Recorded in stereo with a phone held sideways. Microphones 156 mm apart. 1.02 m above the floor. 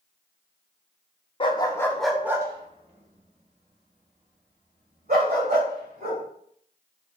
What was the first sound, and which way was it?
A dog barking, 35° left (ahead or behind).